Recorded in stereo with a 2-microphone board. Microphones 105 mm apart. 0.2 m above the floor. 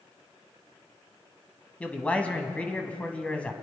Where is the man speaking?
15° left (ahead or behind), 1.2 m.